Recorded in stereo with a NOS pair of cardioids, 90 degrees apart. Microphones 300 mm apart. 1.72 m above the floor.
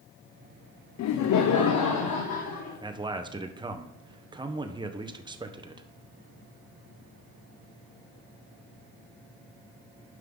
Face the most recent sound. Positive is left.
turn(degrees=-15)